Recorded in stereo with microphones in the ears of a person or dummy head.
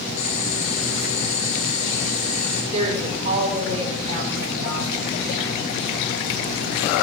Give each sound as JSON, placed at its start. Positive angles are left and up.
{"t": 0.2, "sound": "boiling", "side_deg": 40, "distance_m": 3.5}
{"t": 2.7, "sound": "a woman speaking", "side_deg": -35, "distance_m": 5.5}